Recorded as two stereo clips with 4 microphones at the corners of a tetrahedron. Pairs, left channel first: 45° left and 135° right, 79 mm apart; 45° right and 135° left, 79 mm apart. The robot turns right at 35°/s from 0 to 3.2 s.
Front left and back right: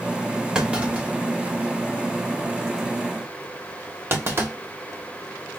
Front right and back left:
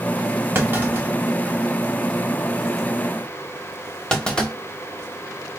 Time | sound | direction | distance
0.6 | a clunk | 155° left | 1.0 m